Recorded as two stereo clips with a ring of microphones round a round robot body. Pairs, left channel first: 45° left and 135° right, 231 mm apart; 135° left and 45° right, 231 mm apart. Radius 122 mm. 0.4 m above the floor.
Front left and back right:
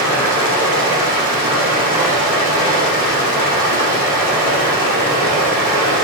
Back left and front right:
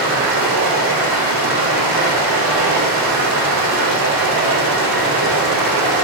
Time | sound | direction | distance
0.0 | running water | 60° right | 1.6 m